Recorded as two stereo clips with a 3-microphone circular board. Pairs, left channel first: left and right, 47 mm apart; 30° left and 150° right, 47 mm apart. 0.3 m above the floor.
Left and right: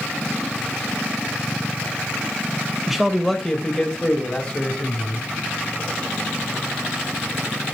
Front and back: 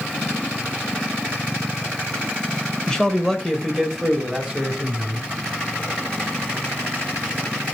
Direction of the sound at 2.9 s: 10° right.